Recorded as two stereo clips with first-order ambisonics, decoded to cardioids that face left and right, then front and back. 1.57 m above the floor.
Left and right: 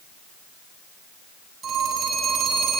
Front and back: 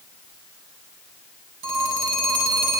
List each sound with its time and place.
1.6 s a phone ringing: 155° right, 8.5 m